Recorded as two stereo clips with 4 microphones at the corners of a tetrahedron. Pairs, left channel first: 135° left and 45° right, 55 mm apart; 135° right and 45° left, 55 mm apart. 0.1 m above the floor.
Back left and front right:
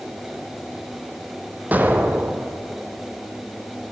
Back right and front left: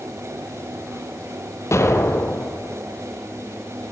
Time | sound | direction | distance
1.7 | an explosion | 105° right | 0.7 m